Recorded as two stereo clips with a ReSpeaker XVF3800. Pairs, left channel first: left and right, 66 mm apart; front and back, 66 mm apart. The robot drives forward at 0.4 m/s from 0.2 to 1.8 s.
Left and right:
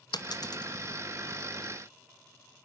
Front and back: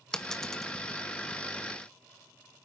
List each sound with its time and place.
0.1 s a dropped coin: 80° left, 2.5 m; by 0.7 s 90° left, 2.5 m